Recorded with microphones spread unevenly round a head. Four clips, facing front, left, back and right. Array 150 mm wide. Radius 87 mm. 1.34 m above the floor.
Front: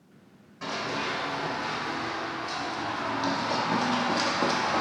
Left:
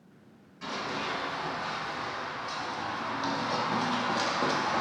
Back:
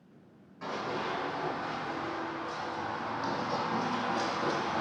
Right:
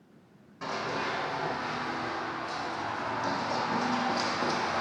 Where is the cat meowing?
No cat meowing in this recording.